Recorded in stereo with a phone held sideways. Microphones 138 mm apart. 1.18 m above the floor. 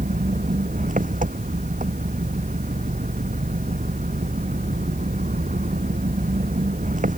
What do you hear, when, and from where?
0.0 s an engine running: 70° right (ahead or behind)